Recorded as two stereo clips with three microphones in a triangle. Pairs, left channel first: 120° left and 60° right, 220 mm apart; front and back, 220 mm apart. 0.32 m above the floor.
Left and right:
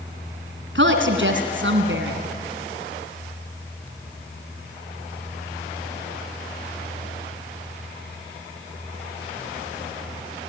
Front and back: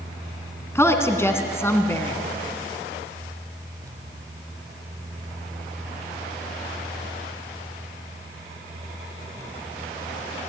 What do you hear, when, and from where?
0.8 s a woman speaking: 80° right, 3 m